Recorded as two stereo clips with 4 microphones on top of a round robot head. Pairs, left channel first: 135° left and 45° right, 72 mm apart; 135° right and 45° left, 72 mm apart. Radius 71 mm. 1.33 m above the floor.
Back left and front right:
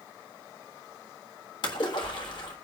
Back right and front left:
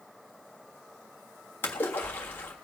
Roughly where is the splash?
Behind.